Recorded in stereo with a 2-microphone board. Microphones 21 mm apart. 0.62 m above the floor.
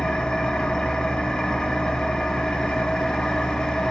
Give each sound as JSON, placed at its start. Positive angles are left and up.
{"t": 0.0, "sound": "an engine running", "side_deg": 45, "distance_m": 2.5}